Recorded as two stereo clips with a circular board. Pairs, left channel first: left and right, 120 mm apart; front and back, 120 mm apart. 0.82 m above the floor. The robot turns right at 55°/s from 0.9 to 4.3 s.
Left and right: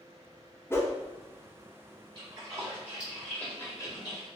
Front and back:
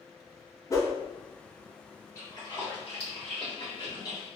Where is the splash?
55° right, 1.7 m; by 4.3 s 60° left, 1.7 m.